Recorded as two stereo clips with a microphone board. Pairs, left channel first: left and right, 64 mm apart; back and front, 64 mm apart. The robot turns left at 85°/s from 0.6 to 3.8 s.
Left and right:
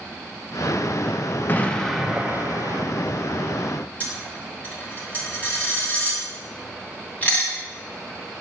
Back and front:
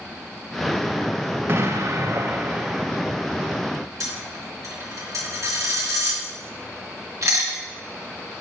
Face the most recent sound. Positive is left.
turn(degrees=25)